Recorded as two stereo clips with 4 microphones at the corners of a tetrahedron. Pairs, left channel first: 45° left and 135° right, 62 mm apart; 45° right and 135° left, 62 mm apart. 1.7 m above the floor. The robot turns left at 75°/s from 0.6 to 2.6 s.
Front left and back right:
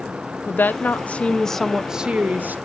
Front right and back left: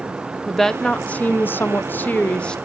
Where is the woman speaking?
40° left, 0.7 m; by 2.5 s 110° right, 0.7 m.